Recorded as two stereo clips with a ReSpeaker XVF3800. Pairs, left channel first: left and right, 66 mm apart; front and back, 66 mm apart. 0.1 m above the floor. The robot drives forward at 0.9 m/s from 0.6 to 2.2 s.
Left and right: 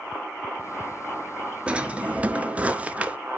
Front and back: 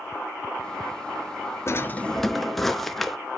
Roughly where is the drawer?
Ahead right.